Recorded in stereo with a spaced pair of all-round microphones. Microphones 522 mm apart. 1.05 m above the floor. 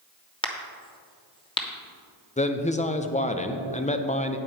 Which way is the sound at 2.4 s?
15° left (ahead or behind).